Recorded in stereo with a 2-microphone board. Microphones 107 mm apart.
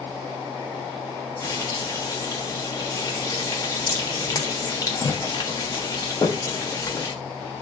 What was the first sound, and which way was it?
Frying, 30° left (ahead or behind).